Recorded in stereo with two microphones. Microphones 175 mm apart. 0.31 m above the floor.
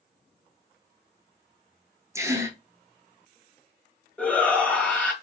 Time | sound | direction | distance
2.1 | a gasp | 15° right (ahead or behind) | 0.8 m
4.2 | a shout | 10° left (ahead or behind) | 1.5 m